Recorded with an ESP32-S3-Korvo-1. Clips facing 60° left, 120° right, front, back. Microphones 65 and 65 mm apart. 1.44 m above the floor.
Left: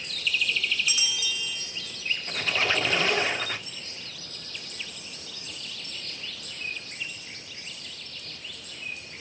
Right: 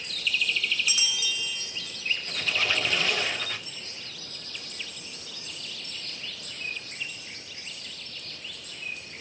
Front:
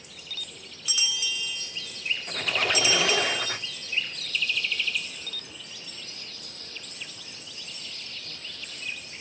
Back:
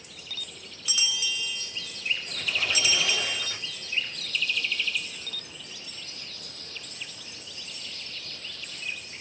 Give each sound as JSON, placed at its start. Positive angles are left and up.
{"t": 2.3, "sound": "a squeak", "azimuth_deg": 5, "distance_m": 0.6}